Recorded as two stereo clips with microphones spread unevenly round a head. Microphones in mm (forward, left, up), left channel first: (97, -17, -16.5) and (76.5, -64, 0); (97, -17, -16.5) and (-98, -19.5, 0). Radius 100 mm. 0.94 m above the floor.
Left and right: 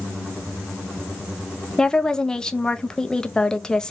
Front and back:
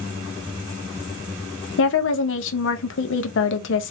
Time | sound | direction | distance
1.8 | a woman speaking | straight ahead | 0.6 m